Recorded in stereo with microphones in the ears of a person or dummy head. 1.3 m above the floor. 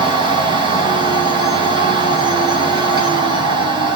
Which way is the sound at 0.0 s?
25° right (ahead or behind).